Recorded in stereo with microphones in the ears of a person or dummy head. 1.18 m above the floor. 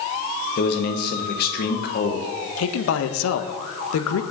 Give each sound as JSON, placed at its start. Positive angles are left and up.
{"t": 0.6, "sound": "a man speaking", "side_deg": 50, "distance_m": 1.1}
{"t": 2.6, "sound": "a man speaking", "side_deg": 85, "distance_m": 0.8}